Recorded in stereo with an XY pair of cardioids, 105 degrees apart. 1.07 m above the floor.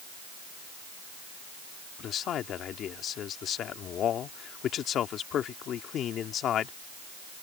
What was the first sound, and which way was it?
A man speaking, 65° left.